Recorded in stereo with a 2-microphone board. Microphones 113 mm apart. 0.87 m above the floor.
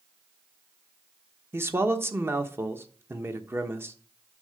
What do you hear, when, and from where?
1.5 s a man speaking: 25° right (ahead or behind), 1.0 m